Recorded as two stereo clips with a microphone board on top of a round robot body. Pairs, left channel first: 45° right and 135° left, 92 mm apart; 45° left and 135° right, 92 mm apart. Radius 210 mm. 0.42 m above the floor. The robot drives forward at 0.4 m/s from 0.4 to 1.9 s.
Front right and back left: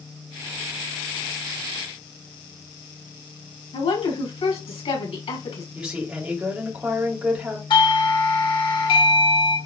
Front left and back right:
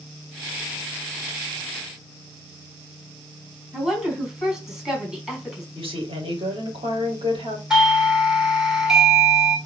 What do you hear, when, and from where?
3.7 s a woman speaking: 50° right, 4.5 m
5.8 s a woman speaking: 145° right, 3.5 m
7.7 s a doorbell: 55° right, 2 m